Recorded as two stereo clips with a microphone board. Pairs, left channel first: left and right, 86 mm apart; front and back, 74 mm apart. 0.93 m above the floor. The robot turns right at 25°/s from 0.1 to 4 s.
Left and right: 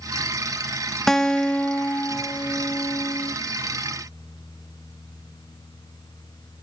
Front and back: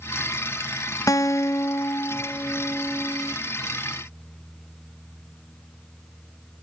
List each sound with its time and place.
1.1 s a guitar: 5° left, 0.6 m; by 3.4 s 60° left, 0.6 m